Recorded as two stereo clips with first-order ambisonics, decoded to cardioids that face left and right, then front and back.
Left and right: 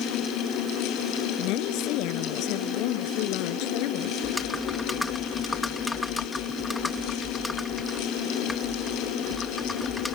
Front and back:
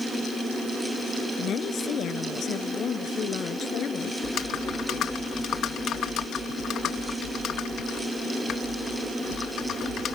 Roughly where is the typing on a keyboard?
Ahead.